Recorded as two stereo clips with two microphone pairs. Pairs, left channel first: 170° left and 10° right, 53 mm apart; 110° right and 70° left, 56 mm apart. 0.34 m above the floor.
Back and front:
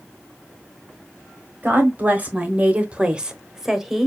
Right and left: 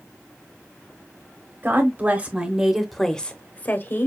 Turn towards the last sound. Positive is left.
turn(degrees=-95)